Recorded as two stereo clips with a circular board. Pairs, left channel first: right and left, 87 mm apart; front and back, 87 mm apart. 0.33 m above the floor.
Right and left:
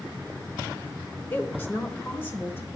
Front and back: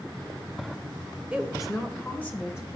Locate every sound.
1.3 s a woman speaking: 120° right, 0.9 m; by 2.8 s 35° right, 1.2 m